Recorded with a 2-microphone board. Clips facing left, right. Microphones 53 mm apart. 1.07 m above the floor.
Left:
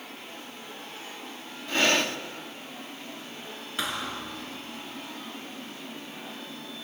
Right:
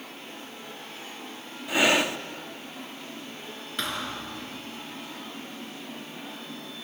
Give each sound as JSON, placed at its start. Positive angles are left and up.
{"t": 1.7, "sound": "breathing", "side_deg": -10, "distance_m": 0.8}
{"t": 3.8, "sound": "a thud", "side_deg": 5, "distance_m": 3.5}